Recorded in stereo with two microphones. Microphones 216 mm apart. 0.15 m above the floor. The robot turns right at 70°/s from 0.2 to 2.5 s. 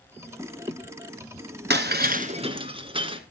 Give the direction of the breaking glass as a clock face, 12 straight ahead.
3 o'clock.